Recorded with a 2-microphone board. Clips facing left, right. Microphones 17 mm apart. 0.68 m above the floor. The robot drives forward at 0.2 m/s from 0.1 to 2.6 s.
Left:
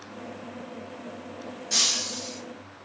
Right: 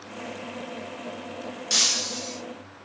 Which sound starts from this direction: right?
Breaking glass, at 1.7 s.